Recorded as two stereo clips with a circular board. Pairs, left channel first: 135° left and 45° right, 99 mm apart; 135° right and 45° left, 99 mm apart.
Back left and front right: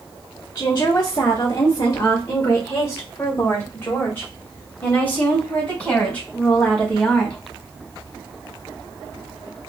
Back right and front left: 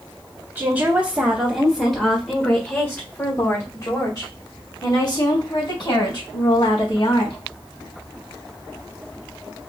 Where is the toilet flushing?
No toilet flushing in this recording.